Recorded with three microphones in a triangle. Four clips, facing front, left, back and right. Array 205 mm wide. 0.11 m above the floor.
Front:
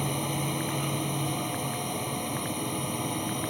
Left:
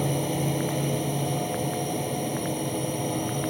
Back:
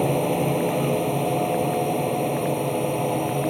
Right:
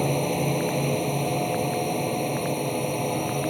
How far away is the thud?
No thud in this recording.